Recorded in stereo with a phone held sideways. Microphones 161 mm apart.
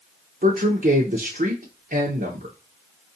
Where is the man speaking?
60° right (ahead or behind), 0.9 m.